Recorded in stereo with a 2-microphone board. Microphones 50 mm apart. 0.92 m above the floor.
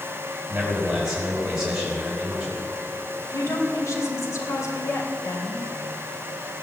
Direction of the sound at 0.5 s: 10° right (ahead or behind).